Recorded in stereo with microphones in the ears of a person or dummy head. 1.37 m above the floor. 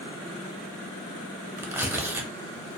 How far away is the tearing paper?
About 0.5 m.